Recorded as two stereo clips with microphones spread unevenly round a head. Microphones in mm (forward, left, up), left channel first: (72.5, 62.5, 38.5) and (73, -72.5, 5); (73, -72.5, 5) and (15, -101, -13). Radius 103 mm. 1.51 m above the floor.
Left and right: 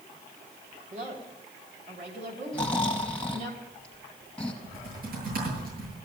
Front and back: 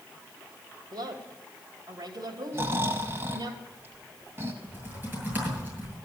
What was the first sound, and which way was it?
A woman speaking, 140° right.